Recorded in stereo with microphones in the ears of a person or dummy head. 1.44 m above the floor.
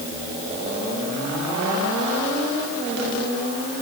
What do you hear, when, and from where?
Only background noise.